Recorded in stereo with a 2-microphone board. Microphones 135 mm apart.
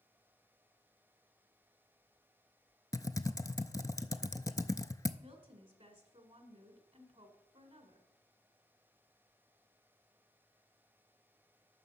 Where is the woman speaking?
40° right (ahead or behind), 1.7 m.